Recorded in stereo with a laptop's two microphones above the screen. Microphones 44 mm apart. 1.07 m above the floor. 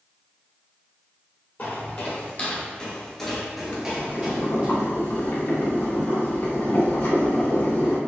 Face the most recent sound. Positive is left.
turn(degrees=65)  # may be behind; listen again after turning